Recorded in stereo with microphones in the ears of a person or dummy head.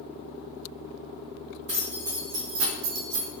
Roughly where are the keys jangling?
Right.